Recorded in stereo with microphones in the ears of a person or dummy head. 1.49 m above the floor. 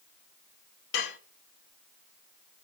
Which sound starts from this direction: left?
Dishes clattering, at 0.9 s.